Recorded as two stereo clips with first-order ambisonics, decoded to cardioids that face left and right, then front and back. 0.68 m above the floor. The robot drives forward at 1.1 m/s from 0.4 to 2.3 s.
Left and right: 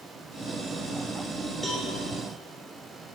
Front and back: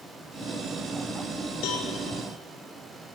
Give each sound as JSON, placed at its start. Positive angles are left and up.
{"t": 1.6, "sound": "a cowbell", "azimuth_deg": 5, "distance_m": 2.0}